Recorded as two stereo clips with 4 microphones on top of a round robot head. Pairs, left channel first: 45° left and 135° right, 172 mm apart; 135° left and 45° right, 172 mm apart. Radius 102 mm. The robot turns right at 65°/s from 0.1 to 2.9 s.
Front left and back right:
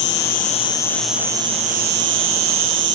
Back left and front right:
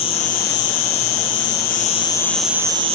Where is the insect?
75° left, 1.0 m; by 3.0 s 105° right, 1.0 m.